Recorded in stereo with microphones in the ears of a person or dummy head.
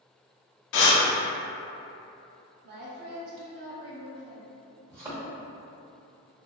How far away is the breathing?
About 0.6 m.